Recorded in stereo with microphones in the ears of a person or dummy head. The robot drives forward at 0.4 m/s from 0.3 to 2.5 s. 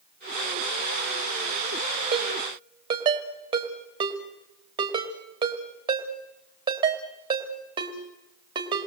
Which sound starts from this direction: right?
A ringtone, at 2.1 s.